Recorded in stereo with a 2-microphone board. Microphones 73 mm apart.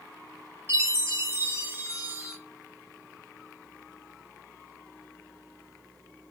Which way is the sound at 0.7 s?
30° right (ahead or behind).